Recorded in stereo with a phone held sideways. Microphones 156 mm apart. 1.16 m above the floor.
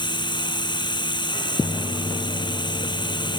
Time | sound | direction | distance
0.0 | running water | 30° left (ahead or behind) | ?